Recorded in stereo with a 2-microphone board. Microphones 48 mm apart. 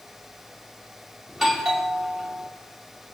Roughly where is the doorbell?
Centre.